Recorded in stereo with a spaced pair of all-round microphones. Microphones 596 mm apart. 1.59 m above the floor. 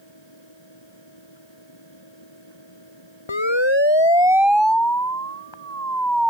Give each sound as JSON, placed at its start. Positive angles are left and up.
{"t": 0.0, "sound": "a fan", "side_deg": 45}
{"t": 3.3, "sound": "a siren", "side_deg": 45}